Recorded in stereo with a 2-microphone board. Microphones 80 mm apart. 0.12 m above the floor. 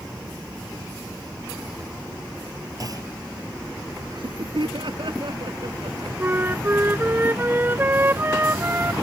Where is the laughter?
70° right (ahead or behind).